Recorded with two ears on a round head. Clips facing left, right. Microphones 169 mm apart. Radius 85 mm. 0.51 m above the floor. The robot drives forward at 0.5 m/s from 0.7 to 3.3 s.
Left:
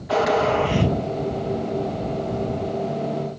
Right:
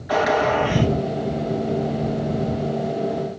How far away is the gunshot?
About 3.5 m.